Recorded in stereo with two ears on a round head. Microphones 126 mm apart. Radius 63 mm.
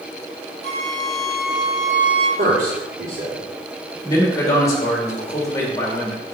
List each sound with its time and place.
0.6 s a flute: 40° right (ahead or behind), 2.5 m
2.4 s a man speaking: 65° right (ahead or behind), 2.5 m
4.0 s a man speaking: 25° left (ahead or behind), 2 m